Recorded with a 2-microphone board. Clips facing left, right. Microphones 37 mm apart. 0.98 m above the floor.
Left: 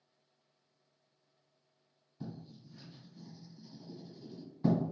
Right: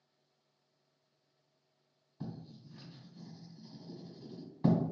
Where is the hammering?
I don't hear hammering.